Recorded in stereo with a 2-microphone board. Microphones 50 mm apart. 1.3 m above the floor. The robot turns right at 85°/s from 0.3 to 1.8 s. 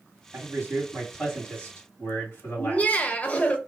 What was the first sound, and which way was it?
A man speaking, 80° right.